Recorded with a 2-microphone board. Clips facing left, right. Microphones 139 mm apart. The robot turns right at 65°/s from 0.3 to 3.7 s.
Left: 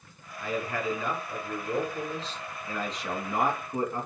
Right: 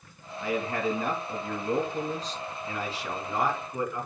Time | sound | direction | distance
0.4 | a man speaking | 170° right | 2.5 m